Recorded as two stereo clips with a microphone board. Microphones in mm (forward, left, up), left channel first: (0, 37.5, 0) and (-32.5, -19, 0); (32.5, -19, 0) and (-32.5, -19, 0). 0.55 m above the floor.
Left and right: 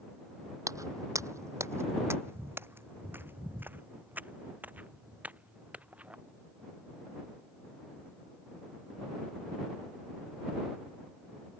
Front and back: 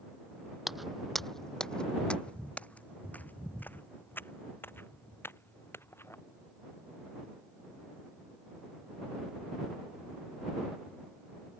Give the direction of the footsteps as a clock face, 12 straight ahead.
3 o'clock.